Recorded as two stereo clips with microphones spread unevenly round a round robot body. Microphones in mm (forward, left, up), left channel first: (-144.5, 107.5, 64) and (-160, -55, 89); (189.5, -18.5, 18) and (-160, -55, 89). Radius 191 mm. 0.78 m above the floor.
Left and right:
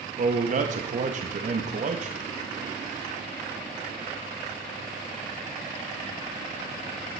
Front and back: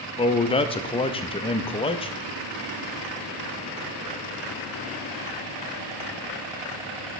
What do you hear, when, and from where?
0.2 s a man speaking: 55° right, 0.7 m